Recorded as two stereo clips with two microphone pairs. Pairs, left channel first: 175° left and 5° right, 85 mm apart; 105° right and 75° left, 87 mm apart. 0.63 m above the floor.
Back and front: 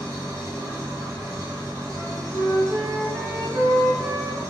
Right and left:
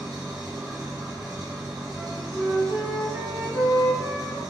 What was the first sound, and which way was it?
An engine running, 35° left.